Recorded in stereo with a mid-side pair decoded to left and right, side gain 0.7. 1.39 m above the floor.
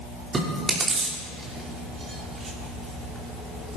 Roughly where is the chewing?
Ahead right.